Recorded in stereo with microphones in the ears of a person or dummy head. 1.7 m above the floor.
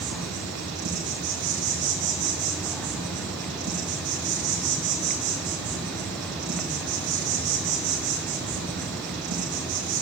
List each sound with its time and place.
0.0 s an insect: 60° right (ahead or behind), 3 m